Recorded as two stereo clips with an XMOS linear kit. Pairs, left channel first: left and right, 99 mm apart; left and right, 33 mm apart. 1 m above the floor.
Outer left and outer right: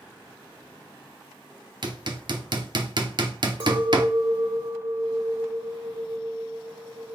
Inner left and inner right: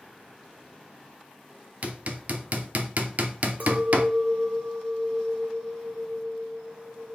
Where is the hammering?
55° right (ahead or behind), 0.7 m.